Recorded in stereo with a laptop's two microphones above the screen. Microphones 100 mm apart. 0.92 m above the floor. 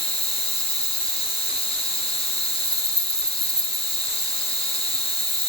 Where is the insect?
75° left (ahead or behind), 6.5 m.